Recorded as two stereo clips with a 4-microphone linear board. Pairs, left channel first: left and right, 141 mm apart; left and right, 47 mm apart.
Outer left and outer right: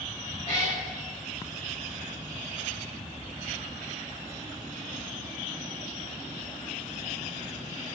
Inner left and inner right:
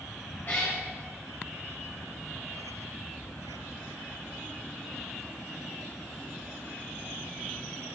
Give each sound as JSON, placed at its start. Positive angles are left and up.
{"t": 0.5, "sound": "a cat meowing", "side_deg": 45, "distance_m": 2.5}